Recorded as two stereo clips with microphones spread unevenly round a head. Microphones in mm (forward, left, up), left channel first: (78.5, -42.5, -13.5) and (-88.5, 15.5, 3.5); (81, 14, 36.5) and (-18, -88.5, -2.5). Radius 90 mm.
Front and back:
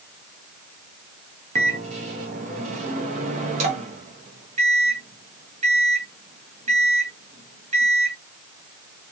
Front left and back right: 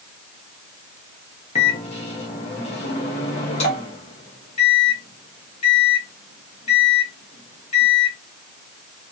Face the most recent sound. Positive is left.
turn(degrees=105)